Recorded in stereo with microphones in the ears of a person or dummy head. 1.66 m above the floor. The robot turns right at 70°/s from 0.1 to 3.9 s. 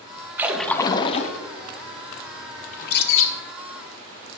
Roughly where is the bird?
Ahead left.